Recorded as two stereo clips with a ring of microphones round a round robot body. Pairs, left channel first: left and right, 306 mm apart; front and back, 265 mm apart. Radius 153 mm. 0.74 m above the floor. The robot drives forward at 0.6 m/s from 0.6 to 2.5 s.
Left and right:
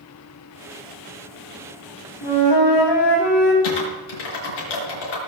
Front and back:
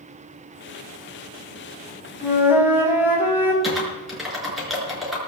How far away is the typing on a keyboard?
About 5.5 m.